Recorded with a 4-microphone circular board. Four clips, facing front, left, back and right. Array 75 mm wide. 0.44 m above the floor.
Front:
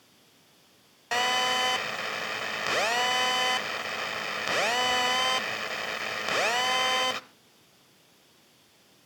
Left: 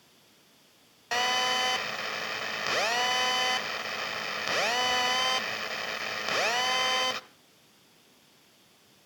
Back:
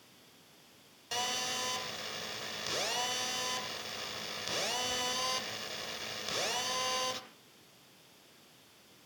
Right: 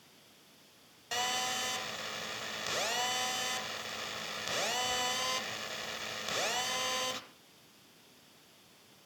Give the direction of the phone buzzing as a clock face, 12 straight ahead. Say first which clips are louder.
Left 8 dB, front 11 dB; 11 o'clock.